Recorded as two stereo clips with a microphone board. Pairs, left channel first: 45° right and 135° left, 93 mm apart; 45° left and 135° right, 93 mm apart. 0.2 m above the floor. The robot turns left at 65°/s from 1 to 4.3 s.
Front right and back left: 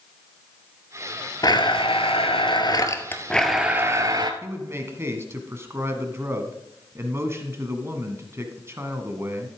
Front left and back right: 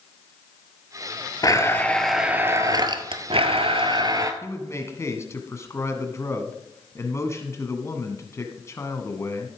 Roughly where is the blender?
Ahead.